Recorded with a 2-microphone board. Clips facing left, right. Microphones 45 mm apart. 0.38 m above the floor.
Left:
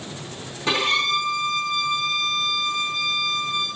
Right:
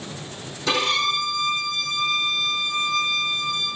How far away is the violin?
About 5.5 m.